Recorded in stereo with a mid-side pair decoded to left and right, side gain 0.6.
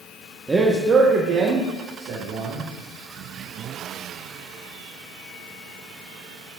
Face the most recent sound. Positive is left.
turn(degrees=-75)